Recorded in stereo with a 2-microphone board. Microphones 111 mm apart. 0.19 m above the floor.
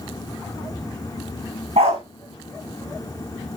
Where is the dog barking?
70° right (ahead or behind), 4.5 m.